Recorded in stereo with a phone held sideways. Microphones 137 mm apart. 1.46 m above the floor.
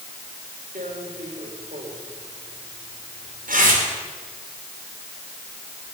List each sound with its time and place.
0.8 s tearing paper: 80° right, 4 m